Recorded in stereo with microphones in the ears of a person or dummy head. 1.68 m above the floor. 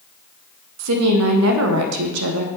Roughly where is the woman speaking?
Right.